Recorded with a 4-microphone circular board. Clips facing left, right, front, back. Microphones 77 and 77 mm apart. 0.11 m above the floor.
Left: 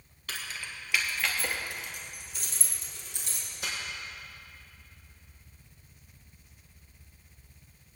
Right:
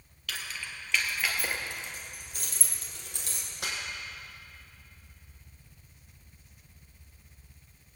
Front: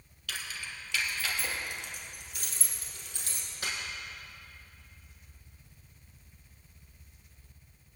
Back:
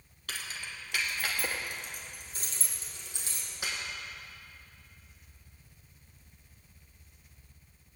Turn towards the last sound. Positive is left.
turn(degrees=-105)